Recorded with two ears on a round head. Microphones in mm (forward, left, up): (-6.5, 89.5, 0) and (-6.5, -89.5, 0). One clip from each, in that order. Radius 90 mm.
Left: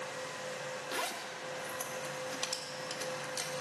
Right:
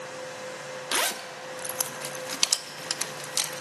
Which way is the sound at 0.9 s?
40° right (ahead or behind).